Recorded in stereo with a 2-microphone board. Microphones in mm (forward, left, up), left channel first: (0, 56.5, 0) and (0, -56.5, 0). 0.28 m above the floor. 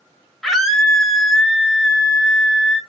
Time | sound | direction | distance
0.4 | a scream | centre (ahead or behind) | 1.1 m